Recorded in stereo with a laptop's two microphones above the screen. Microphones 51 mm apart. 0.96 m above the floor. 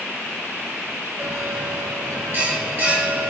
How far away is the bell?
About 2.5 m.